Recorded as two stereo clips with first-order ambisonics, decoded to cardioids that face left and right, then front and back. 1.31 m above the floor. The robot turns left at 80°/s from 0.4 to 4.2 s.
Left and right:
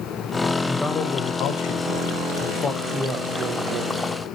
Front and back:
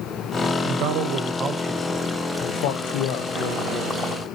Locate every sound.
0.7 s a man speaking: straight behind, 0.8 m; by 4.1 s 95° right, 0.8 m